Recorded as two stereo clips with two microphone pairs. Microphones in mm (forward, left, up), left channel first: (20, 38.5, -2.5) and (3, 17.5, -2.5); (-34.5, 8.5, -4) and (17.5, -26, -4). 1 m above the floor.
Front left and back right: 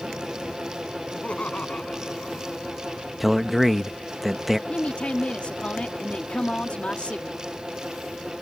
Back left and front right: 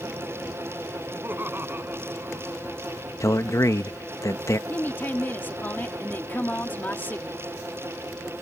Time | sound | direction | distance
1.1 | laughter | 15° left | ?
3.2 | a man speaking | 145° left | ?
4.7 | a woman speaking | 90° left | ?